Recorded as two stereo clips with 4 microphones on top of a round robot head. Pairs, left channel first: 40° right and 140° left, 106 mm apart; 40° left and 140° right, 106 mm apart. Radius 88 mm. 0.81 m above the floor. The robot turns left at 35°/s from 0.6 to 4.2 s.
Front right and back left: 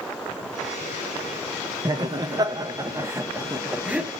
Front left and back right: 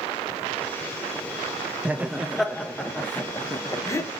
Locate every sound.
1.9 s laughter: 150° left, 0.6 m; by 4.1 s 70° left, 0.6 m